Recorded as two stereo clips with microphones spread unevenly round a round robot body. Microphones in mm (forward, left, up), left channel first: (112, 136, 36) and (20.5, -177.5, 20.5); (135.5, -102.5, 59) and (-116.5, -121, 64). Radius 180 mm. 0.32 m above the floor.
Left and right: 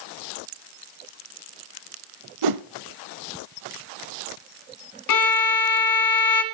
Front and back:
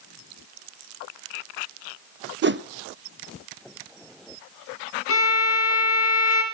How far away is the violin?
About 1.5 m.